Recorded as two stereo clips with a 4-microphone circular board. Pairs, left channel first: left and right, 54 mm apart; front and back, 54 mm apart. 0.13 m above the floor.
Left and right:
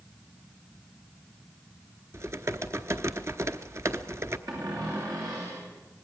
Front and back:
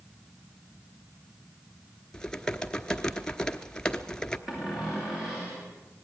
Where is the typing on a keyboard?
75° right, 1.0 m.